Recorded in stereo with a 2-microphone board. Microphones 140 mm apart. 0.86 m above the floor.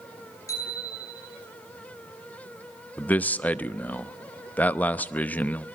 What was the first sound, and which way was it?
A bicycle bell, 25° left (ahead or behind).